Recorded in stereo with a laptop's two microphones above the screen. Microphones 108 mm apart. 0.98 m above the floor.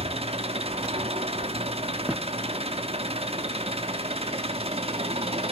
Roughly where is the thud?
Centre.